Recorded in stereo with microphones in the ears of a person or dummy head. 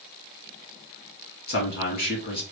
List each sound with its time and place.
1.5 s a man speaking: 50° left (ahead or behind), 2 m